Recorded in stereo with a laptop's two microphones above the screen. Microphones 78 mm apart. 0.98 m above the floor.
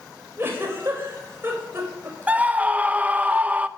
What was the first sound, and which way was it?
A giggle, 30° right (ahead or behind).